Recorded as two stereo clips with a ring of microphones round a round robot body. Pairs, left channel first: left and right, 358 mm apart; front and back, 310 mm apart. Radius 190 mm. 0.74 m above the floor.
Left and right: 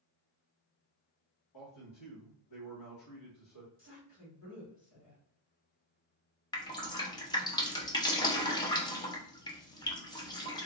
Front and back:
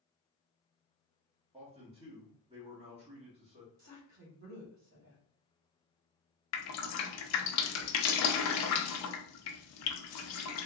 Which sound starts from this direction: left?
A man speaking, at 1.5 s.